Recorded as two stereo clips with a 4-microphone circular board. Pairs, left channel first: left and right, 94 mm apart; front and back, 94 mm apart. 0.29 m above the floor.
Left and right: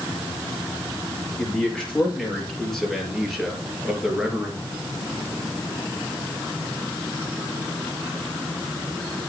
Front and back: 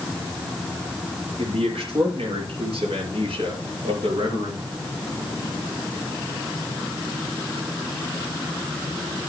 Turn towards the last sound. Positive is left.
turn(degrees=-175)